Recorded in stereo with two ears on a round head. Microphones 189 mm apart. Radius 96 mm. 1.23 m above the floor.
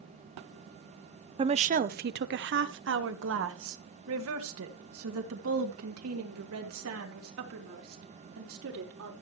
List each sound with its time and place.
1.4 s a woman speaking: 25° right (ahead or behind), 0.5 m; by 9.1 s 75° right (ahead or behind), 4.5 m